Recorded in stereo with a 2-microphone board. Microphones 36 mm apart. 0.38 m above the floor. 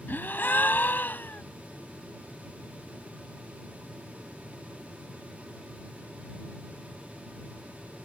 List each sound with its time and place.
0.1 s a gasp: 60° left (ahead or behind)